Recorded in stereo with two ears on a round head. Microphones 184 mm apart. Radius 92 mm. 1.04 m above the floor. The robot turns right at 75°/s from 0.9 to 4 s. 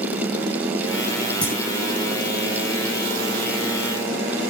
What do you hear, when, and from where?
1.4 s a clunk: 5° left (ahead or behind), 8 m; by 1.6 s 20° left (ahead or behind), 8 m